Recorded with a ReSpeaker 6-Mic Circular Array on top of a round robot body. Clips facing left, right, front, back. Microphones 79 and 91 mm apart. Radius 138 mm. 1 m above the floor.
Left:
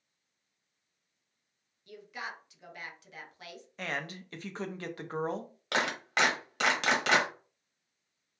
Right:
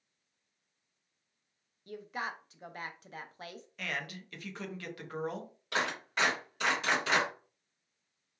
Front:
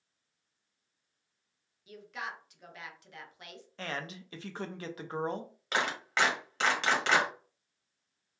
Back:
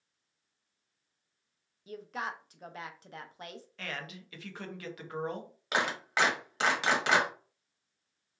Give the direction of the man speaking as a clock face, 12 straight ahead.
11 o'clock.